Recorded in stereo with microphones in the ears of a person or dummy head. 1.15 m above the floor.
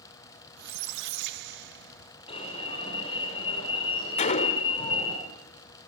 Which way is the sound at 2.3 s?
30° left (ahead or behind).